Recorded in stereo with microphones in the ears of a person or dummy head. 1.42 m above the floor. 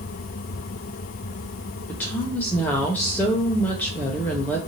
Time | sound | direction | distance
1.9 | a woman speaking | 10° left (ahead or behind) | 0.6 m